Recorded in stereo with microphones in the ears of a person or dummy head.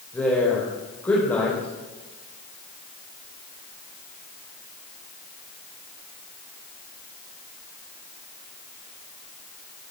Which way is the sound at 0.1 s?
5° left (ahead or behind).